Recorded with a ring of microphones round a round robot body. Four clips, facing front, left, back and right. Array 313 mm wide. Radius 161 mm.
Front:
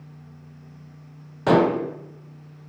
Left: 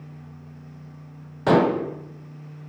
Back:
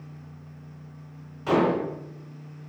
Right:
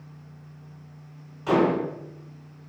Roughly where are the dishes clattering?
Ahead left.